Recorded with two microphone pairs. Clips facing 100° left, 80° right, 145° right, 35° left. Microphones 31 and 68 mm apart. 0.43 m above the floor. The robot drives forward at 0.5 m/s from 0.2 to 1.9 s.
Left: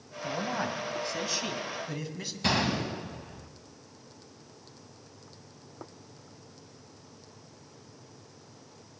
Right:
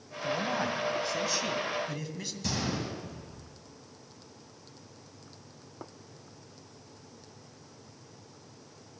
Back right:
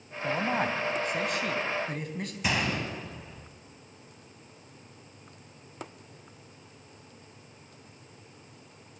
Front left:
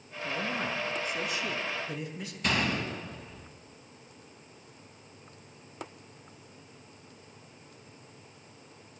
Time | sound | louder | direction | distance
0.2 | a man speaking | right 1 dB, back right 5 dB | 170° right | 3 m
2.4 | a gunshot | left 6 dB, front left 1 dB | 140° left | 3.5 m